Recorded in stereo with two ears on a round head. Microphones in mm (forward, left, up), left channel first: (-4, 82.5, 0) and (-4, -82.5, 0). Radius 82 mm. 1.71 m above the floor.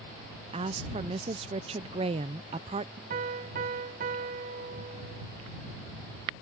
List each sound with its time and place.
0.5 s a woman speaking: 30° right (ahead or behind)
3.1 s a piano: 50° right (ahead or behind)